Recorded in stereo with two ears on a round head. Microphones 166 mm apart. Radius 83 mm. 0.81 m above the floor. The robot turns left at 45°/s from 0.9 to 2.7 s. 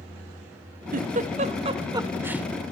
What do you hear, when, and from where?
0.9 s a giggle: 50° right (ahead or behind), 0.6 m; by 2.5 s 5° right (ahead or behind), 0.6 m